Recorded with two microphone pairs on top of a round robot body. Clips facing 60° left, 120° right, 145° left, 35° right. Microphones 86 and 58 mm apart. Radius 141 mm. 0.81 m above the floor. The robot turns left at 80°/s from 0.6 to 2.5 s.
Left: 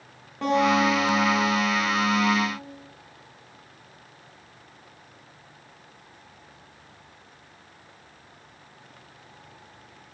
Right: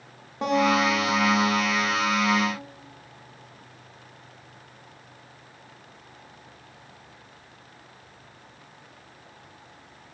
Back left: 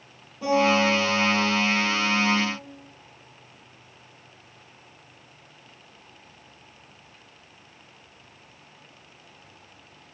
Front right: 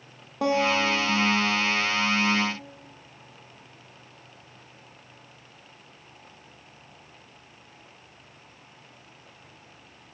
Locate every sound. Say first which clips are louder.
0.4 s a guitar: left 1 dB, back left 3 dB; 45° right, 0.7 m; by 2.6 s 160° left, 0.7 m